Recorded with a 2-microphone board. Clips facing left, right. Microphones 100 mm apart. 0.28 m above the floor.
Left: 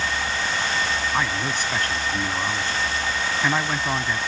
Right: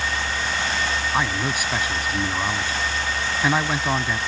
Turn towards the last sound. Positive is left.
turn(degrees=-10)  # may be behind; listen again after turning